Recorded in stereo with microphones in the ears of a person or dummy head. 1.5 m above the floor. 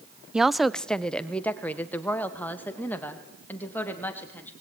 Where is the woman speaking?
5° right (ahead or behind), 0.5 m; by 4.5 s 10° left (ahead or behind), 3.5 m.